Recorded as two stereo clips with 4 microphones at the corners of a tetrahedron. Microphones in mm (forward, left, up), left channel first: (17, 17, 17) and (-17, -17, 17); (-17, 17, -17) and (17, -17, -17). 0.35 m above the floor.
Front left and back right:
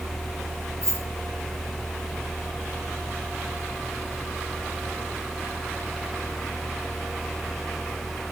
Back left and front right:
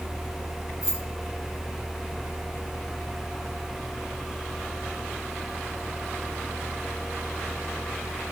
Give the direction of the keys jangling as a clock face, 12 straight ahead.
4 o'clock.